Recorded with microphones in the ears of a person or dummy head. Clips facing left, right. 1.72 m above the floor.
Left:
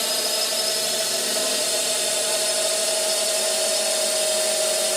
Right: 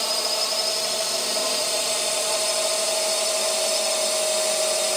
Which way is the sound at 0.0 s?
20° left (ahead or behind).